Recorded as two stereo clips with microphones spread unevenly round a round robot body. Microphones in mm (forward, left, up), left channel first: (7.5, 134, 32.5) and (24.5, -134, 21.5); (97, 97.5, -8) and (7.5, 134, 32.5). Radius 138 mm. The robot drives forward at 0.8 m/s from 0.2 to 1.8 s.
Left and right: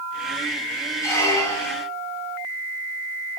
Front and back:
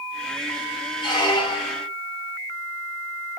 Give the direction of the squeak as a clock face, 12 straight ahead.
12 o'clock.